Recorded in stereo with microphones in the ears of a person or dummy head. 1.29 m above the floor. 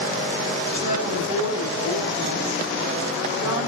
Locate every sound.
0.7 s a woman speaking: 30° right (ahead or behind), 8.5 m